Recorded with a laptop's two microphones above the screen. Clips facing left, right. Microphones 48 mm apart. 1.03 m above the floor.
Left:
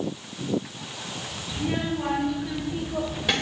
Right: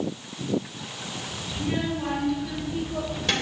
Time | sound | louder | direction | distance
1.5 | a child speaking | left 1 dB | 20° left (ahead or behind) | 4 m